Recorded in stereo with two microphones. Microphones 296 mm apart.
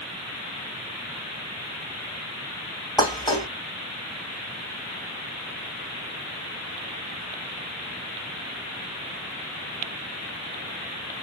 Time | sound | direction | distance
3.0 | dishes clattering | 15° left (ahead or behind) | 1.0 m